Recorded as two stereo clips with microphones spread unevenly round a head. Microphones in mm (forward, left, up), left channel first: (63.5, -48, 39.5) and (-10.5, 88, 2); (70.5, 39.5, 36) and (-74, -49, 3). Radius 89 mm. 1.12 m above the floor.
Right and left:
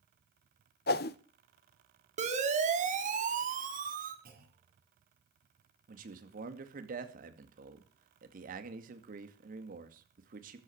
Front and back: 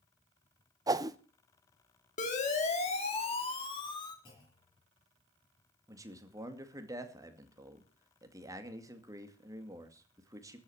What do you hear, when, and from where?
0.9 s a whoosh: 90° right, 0.8 m
2.2 s a siren: 80° left, 3 m; by 4.2 s 100° left, 3 m
4.2 s a clunk: 95° left, 8 m
5.9 s a man speaking: 145° left, 2 m